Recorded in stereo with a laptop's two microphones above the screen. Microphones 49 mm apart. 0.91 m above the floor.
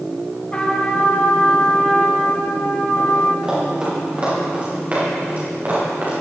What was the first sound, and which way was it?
A trumpet, 25° left (ahead or behind).